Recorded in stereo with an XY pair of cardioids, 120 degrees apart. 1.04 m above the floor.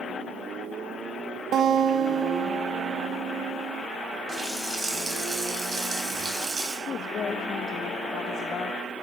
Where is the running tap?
25° right, 4.5 m.